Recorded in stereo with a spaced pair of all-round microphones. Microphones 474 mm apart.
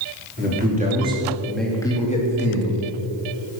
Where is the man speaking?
20° right (ahead or behind), 3 m; by 2.7 s 30° left (ahead or behind), 2.5 m.